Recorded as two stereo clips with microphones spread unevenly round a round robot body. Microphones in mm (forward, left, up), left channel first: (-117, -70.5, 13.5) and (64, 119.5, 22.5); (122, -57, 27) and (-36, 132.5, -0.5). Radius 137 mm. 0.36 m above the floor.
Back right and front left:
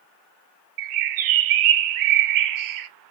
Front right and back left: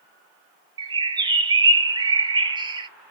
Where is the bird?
55° left, 0.5 m.